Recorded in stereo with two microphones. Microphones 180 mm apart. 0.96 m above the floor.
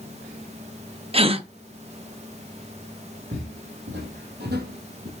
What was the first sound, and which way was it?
A gasp, 30° right (ahead or behind).